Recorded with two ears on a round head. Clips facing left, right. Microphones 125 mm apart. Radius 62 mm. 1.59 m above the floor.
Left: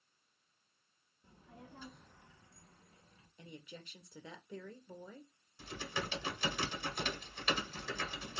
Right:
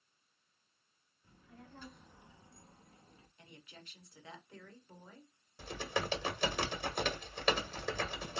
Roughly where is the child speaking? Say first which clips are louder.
Left 1 dB; left.